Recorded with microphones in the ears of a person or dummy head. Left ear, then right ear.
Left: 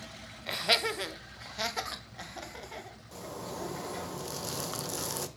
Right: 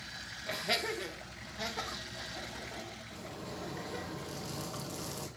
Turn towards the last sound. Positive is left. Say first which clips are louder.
# left 8 dB
turn(degrees=75)  # may be behind; listen again after turning